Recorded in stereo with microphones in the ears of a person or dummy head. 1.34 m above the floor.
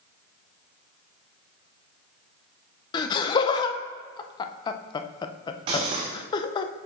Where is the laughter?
25° left (ahead or behind), 0.5 m.